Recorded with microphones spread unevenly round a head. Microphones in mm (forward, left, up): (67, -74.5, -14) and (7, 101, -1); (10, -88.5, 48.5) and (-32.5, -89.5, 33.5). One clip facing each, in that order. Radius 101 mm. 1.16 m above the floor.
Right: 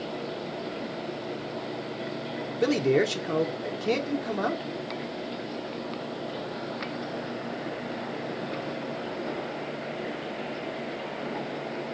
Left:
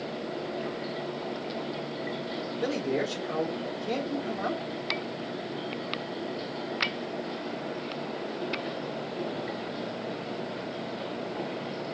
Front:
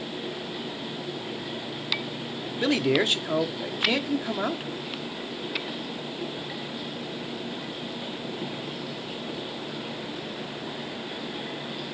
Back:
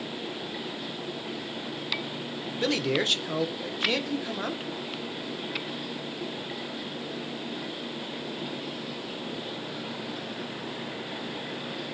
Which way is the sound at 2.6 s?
85° right.